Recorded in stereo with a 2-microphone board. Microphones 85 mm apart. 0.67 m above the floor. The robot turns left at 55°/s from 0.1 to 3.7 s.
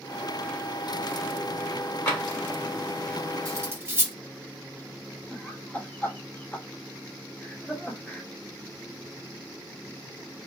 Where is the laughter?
20° left (ahead or behind), 0.9 m.